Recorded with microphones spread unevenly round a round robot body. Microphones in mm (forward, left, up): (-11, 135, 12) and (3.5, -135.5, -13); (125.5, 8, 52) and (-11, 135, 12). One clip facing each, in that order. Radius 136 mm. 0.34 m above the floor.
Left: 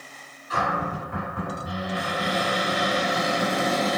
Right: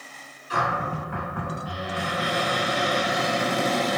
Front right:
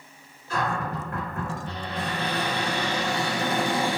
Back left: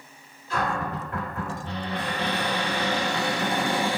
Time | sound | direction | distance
0.5 | a cupboard door | 75° right | 1.7 m